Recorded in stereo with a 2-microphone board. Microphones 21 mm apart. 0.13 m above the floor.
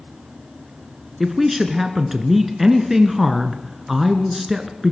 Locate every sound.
1.2 s a woman speaking: 15° right (ahead or behind), 1.4 m